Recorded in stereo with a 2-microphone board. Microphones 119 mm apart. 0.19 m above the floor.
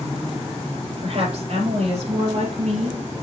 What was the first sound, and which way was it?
A woman speaking, 60° right (ahead or behind).